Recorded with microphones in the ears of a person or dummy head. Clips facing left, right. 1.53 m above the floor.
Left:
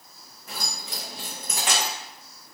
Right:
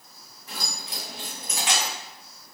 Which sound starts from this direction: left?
Keys jangling, at 0.5 s.